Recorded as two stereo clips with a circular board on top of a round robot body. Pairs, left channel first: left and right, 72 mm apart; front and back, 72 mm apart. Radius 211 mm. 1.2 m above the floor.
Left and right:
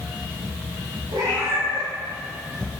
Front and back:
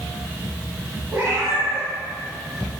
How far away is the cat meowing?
About 1.4 m.